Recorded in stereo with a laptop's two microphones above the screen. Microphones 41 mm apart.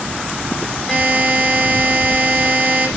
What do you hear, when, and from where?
0.9 s a buzzer: 5° left (ahead or behind), 4 m